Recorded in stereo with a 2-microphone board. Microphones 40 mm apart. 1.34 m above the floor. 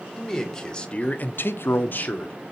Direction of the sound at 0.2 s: 10° left (ahead or behind).